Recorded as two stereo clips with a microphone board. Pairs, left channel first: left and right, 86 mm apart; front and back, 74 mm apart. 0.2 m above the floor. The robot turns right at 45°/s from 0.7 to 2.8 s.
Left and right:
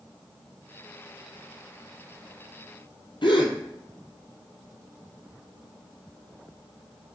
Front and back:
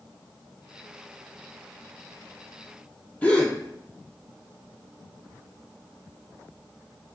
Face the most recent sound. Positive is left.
turn(degrees=70)